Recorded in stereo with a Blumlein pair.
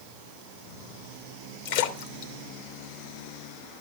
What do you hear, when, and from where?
1.6 s a splash: 50° left, 2.0 m